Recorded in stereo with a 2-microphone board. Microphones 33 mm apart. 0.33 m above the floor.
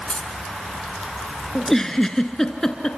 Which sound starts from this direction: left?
Keys jangling, at 0.1 s.